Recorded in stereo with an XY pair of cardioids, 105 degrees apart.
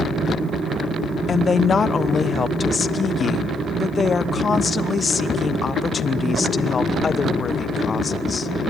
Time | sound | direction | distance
1.3 | a woman speaking | 35° left | 1.0 m